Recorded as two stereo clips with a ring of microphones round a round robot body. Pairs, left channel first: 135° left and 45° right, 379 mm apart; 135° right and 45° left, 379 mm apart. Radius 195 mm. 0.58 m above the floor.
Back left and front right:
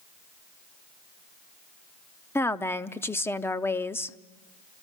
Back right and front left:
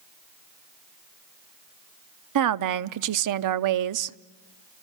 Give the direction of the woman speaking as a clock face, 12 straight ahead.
10 o'clock.